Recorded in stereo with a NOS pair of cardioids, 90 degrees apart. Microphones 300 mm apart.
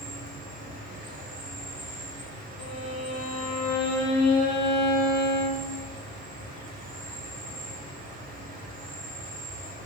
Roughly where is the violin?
Left.